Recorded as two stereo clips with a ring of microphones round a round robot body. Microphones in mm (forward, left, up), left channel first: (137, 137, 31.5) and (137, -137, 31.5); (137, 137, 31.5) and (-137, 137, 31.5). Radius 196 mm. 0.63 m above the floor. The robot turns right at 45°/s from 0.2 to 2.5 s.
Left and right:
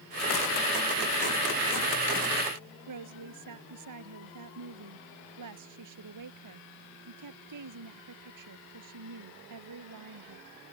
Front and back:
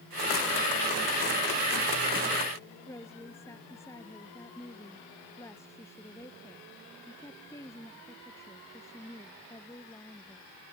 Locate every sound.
2.9 s a woman speaking: 85° right